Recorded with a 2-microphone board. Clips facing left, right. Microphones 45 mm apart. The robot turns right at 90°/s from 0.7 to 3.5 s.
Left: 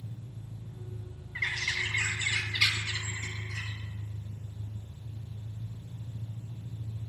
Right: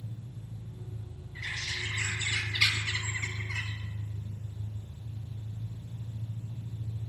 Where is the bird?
75° left, 1.0 m; by 3.7 s 95° right, 1.0 m.